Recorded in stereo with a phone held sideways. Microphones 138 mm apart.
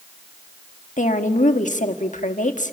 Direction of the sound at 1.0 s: 75° left (ahead or behind).